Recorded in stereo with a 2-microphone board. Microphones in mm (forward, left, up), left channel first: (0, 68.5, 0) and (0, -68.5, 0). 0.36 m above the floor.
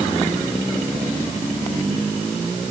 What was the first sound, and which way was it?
Only background noise.